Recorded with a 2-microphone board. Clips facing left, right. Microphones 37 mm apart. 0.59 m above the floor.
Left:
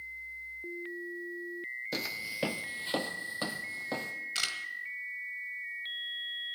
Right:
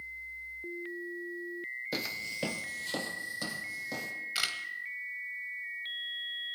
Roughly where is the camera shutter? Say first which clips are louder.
Right 1 dB; centre.